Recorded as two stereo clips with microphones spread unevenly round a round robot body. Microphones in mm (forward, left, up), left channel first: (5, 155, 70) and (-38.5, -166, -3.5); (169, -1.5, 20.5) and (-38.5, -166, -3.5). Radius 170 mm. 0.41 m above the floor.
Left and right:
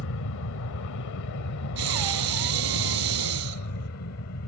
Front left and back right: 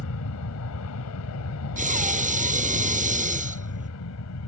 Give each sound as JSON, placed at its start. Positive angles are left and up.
{"t": 0.0, "sound": "an aircraft", "azimuth_deg": 50}
{"t": 1.8, "sound": "breathing", "azimuth_deg": -80}